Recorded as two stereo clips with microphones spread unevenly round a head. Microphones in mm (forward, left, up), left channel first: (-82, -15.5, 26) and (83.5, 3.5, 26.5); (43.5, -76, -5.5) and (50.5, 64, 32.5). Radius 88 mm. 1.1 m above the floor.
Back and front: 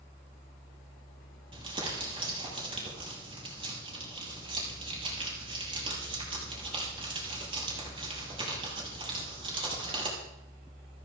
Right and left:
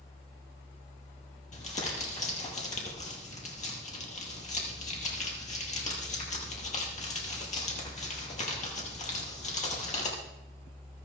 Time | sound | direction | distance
1.5 | crumpling | 55° right | 6 m